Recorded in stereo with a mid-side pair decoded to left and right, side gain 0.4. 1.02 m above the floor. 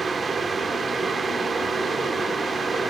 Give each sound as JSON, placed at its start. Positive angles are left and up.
{"t": 0.0, "sound": "a fan", "azimuth_deg": -35, "distance_m": 1.3}